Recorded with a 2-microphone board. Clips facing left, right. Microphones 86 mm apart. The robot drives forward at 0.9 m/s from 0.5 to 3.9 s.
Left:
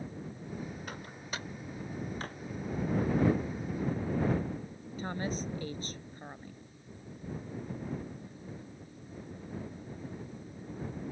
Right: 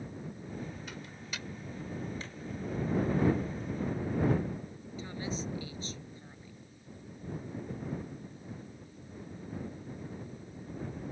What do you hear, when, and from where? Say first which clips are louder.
0.9 s a microwave: left 2 dB; 45° left (ahead or behind); by 1.5 s 35° left (ahead or behind)
2.2 s a drawer: left 4 dB; 50° left (ahead or behind)
5.0 s a woman speaking: left 3 dB; 50° left (ahead or behind)